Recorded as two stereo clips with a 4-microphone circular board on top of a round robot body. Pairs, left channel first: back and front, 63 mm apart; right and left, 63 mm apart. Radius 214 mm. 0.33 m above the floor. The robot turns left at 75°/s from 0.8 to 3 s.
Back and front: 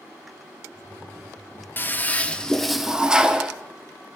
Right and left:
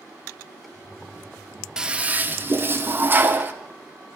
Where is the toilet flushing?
160° left, 0.8 m; by 3.5 s 70° left, 0.8 m.